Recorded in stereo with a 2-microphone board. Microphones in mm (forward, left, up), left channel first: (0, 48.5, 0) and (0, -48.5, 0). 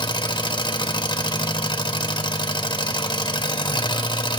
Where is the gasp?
No gasp in this recording.